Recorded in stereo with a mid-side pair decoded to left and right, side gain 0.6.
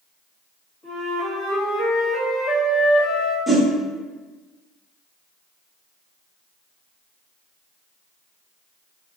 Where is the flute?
55° left, 1.8 m.